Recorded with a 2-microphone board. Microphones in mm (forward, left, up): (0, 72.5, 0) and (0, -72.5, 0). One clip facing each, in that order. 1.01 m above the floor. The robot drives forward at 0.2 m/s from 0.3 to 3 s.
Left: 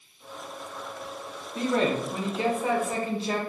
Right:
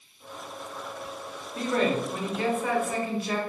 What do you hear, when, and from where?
1.6 s a man speaking: 20° left (ahead or behind), 1.1 m; by 3.4 s 30° left (ahead or behind), 0.9 m